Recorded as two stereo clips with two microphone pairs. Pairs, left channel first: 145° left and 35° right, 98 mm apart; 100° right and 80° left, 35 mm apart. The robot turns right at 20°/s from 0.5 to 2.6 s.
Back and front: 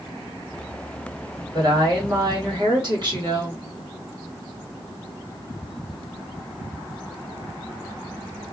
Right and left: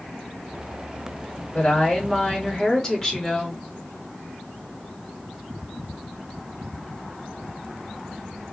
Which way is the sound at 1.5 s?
50° right.